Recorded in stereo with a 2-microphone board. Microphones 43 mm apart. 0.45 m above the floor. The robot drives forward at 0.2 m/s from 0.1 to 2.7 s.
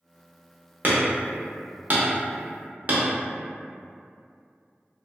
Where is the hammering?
45° right (ahead or behind), 0.6 m.